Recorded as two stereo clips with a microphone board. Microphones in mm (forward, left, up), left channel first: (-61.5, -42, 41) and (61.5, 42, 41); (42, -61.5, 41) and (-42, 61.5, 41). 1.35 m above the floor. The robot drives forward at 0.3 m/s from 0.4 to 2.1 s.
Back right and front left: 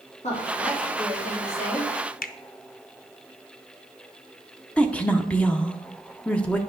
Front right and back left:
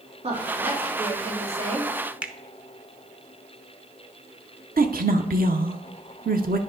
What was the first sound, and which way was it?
A woman speaking, 175° left.